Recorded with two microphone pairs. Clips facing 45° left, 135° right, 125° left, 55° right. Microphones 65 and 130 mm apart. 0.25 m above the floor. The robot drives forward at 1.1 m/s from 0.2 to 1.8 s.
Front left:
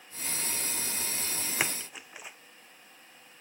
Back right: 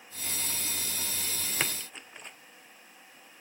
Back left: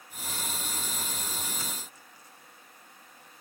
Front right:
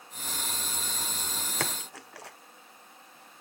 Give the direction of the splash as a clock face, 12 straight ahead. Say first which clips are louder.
Front left 1 dB, front right 6 dB; 1 o'clock.